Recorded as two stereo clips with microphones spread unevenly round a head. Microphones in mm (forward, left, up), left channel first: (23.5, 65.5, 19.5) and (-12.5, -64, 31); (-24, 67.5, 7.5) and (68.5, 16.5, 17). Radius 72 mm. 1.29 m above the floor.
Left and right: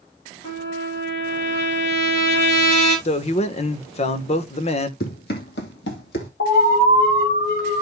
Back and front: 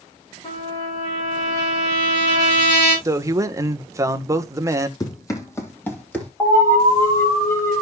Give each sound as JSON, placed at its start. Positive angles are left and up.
{"t": 0.4, "sound": "a trumpet", "azimuth_deg": 115, "distance_m": 9.5}
{"t": 3.0, "sound": "a man speaking", "azimuth_deg": 35, "distance_m": 1.2}
{"t": 5.0, "sound": "running footsteps", "azimuth_deg": 95, "distance_m": 3.0}
{"t": 6.4, "sound": "an alarm", "azimuth_deg": 90, "distance_m": 5.0}